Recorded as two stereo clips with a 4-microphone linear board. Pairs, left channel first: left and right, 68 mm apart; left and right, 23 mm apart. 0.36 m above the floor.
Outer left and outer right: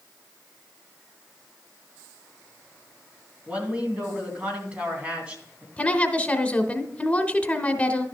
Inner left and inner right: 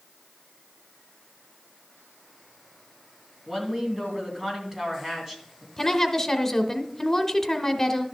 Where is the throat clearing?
I don't hear throat clearing.